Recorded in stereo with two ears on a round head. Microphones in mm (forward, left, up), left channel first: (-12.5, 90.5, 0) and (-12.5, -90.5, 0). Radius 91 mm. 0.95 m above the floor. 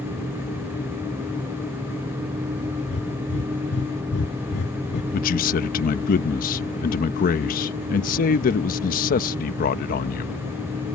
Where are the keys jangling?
I don't hear keys jangling.